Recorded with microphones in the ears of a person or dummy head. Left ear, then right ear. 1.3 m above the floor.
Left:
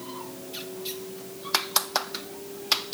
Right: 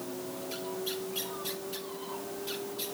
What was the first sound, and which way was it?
A vehicle, 35° right (ahead or behind).